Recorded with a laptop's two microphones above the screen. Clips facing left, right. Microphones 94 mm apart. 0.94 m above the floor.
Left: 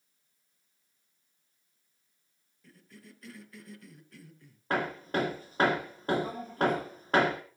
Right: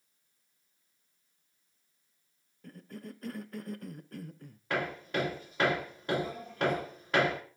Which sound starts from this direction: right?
A cough, at 2.6 s.